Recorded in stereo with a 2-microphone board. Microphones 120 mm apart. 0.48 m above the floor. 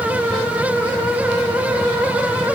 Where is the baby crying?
I don't hear a baby crying.